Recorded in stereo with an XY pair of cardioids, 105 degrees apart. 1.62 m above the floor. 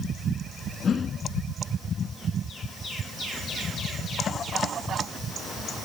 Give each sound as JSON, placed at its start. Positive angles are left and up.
{"t": 0.8, "sound": "a whoosh", "azimuth_deg": 40, "distance_m": 2.0}